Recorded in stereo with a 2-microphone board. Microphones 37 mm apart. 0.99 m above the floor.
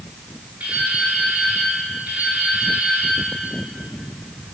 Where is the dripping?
55° right (ahead or behind), 5 m.